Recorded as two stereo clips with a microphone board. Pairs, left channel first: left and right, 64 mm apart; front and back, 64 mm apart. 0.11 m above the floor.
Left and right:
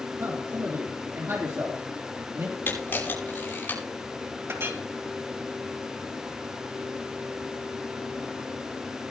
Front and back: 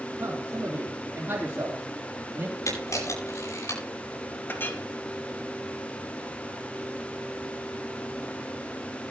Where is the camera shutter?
35° left, 9.5 m.